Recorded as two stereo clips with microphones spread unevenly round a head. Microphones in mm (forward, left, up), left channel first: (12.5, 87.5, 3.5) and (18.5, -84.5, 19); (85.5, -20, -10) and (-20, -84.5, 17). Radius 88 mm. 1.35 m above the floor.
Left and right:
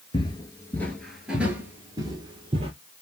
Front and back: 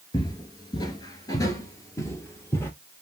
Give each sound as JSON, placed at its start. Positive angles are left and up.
{"t": 0.1, "sound": "footsteps", "azimuth_deg": 75, "distance_m": 1.4}